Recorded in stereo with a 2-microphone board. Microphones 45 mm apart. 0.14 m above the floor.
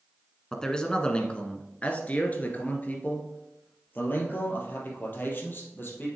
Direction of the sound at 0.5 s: 10° left (ahead or behind).